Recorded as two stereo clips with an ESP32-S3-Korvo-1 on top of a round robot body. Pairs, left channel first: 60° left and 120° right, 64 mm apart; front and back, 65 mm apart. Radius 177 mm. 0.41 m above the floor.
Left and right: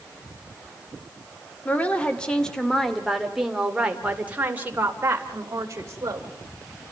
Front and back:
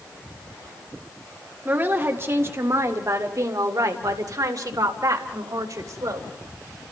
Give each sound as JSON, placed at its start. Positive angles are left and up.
{"t": 1.6, "sound": "a woman speaking", "azimuth_deg": 125, "distance_m": 2.5}